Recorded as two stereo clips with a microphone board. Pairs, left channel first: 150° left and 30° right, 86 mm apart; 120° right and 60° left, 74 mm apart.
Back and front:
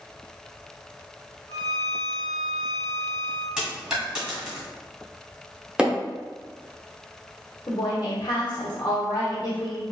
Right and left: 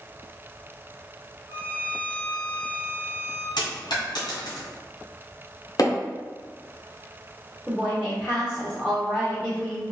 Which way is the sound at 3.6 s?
110° right.